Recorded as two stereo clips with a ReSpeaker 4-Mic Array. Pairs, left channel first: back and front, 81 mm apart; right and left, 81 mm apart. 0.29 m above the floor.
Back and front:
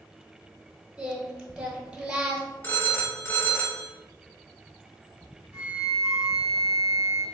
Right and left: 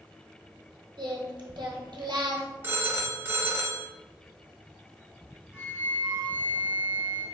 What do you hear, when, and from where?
1.0 s singing: 75° left, 0.9 m
2.6 s a phone ringing: 135° left, 0.6 m
5.5 s a flute: 40° left, 1.0 m